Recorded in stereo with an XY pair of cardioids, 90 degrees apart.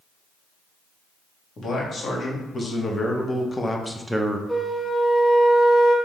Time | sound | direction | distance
1.6 | a man speaking | 55° left | 1.8 m
4.5 | a flute | 5° left | 1.1 m